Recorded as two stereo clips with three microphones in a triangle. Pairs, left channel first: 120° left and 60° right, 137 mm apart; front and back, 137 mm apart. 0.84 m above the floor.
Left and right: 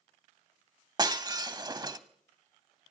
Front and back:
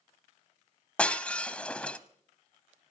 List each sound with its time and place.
1.0 s breaking glass: 75° right, 0.7 m